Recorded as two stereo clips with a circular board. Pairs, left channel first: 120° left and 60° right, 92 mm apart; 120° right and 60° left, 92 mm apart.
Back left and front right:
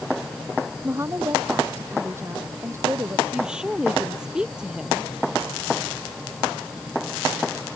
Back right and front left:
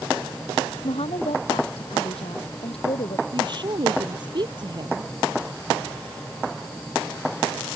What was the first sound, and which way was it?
A woman speaking, 125° right.